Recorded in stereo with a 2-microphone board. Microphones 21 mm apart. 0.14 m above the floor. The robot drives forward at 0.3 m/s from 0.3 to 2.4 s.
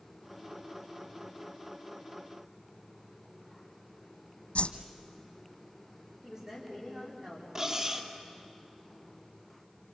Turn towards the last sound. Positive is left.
turn(degrees=-25)  # may be behind; listen again after turning